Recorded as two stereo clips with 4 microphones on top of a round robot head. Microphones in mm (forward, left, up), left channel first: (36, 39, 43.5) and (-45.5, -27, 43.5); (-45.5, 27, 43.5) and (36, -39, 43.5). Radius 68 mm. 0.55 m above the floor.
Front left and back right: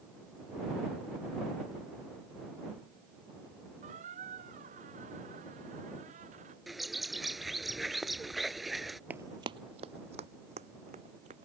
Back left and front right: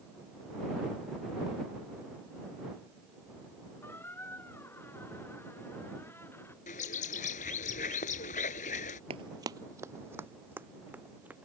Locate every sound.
3.8 s a squeak: 150° right
6.7 s a bird: 130° left
9.1 s running footsteps: 70° right; by 11.5 s 115° right